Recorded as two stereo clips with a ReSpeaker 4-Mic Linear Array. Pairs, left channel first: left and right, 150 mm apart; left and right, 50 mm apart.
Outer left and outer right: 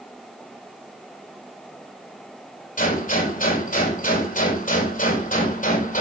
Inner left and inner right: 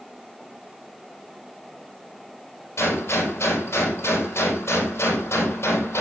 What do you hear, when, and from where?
2.8 s a gunshot: 65° left (ahead or behind), 4 m